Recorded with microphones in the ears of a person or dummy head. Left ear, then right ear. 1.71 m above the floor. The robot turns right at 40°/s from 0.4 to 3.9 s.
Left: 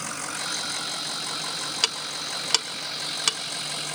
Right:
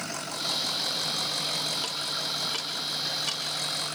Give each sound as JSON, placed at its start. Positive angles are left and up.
{"t": 1.8, "sound": "ticking", "side_deg": 65, "distance_m": 1.4}